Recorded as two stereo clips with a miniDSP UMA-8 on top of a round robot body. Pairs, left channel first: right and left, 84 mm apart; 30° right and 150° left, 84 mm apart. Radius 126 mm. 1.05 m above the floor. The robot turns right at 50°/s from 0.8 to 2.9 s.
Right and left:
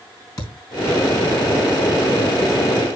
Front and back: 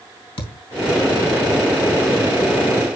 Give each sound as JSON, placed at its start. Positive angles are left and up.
{"t": 0.4, "sound": "a thud", "azimuth_deg": -40, "distance_m": 3.0}